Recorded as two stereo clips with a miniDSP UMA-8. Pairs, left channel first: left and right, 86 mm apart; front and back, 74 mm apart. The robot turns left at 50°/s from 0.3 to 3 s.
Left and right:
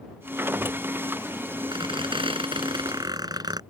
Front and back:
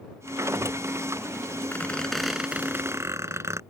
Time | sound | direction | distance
1.7 | a squeak | 65° right | ?